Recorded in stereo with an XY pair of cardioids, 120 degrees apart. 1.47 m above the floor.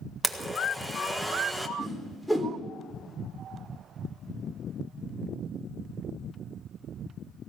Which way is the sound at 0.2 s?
5° left.